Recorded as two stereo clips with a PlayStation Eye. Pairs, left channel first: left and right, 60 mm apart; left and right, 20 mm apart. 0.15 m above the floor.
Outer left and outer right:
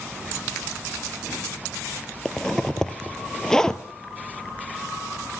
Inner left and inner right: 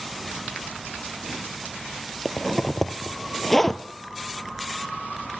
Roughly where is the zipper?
Centre.